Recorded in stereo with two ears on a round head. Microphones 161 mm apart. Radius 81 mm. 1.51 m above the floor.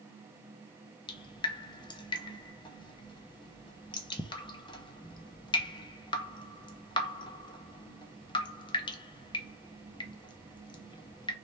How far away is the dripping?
About 0.6 m.